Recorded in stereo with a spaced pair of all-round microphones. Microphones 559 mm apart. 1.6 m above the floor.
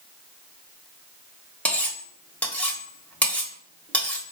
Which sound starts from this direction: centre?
Cutlery clinking, at 1.6 s.